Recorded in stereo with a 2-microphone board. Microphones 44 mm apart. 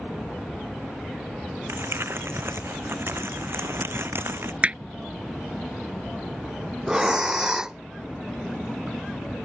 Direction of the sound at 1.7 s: 60° right (ahead or behind).